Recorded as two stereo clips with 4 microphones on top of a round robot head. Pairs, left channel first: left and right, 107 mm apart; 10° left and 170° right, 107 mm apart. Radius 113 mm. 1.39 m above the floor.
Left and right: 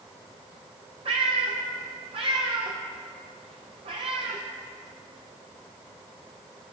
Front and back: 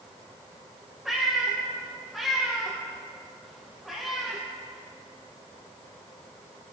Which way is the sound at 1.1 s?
80° right.